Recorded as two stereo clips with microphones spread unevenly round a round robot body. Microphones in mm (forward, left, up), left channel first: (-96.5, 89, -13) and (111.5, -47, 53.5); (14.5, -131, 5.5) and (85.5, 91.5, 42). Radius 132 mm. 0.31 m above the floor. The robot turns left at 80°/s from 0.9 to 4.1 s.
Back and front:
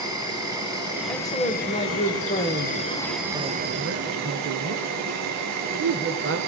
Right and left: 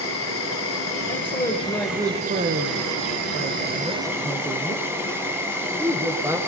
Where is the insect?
115° right, 3 m; by 6.5 s 10° right, 3 m.